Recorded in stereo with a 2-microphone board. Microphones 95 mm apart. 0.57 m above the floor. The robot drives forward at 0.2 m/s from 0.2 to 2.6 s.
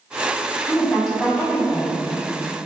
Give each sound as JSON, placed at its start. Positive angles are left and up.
{"t": 0.7, "sound": "a woman speaking", "side_deg": -5, "distance_m": 0.9}